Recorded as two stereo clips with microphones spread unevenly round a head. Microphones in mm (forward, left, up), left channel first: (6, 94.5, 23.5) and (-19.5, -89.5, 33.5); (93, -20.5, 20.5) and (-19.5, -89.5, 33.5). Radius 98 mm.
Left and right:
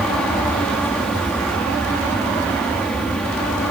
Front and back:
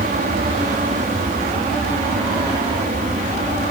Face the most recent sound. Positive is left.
turn(degrees=170)